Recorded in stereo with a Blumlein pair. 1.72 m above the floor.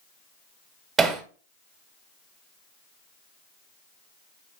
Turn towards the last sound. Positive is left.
turn(degrees=-20)